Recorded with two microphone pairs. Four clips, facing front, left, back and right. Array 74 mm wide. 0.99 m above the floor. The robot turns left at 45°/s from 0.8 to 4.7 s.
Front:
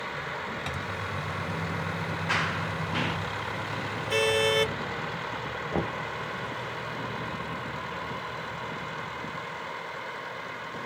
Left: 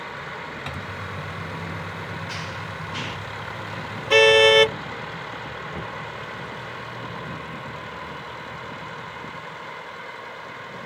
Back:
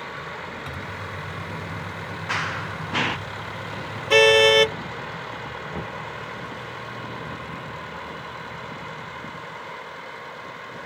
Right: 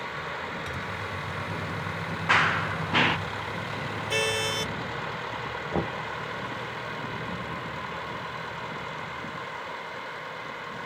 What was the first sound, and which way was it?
A microwave, 60° left.